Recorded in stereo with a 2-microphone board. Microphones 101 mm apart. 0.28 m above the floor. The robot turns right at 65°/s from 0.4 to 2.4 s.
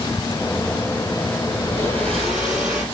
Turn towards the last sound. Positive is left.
turn(degrees=-170)